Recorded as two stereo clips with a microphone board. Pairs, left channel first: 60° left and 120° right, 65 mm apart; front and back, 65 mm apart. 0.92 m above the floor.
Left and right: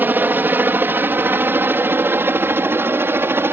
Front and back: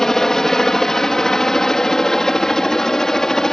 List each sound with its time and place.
0.0 s a helicopter: 80° right